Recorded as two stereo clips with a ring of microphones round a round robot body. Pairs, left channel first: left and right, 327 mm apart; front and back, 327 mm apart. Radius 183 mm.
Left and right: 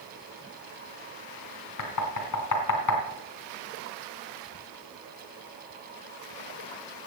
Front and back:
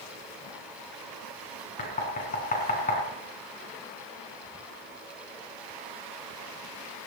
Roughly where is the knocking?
Left.